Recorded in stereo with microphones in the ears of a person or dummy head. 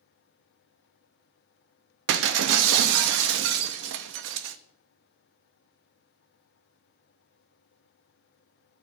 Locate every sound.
2.1 s breaking glass: 65° right (ahead or behind), 0.7 m